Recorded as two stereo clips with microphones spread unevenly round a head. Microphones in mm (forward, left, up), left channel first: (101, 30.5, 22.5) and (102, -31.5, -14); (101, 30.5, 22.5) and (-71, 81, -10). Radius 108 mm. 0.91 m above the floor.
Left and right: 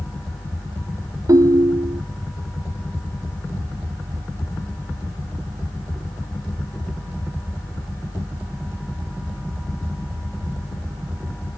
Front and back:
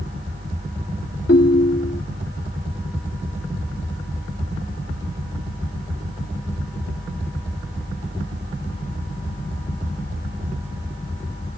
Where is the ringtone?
60° right.